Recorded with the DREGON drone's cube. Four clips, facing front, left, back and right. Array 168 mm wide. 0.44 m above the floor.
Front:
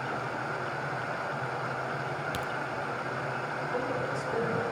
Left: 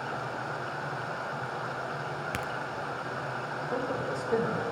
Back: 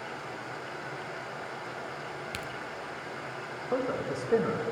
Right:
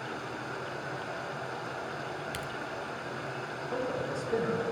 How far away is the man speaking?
About 1.8 m.